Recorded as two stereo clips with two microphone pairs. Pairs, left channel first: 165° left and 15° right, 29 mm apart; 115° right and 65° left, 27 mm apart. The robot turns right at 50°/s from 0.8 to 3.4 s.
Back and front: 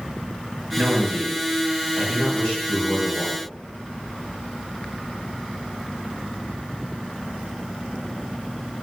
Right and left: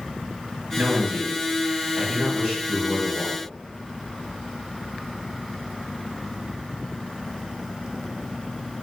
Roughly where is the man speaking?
Ahead left.